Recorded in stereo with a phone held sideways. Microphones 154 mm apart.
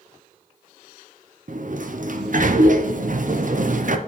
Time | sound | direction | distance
1.5 | a sliding door | 60° right (ahead or behind) | 0.6 m